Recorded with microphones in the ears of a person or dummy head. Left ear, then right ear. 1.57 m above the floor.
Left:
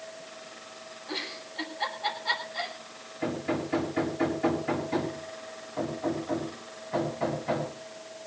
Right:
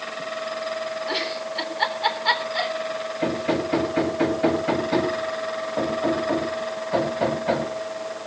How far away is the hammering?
About 5.5 m.